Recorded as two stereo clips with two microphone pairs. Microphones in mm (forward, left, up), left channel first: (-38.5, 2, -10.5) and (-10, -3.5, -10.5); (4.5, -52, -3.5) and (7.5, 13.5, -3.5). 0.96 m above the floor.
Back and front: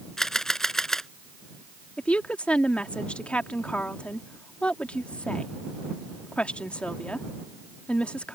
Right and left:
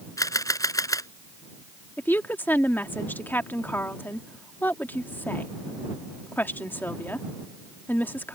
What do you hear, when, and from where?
0.2 s a camera shutter: 115° right
2.0 s a woman speaking: 150° right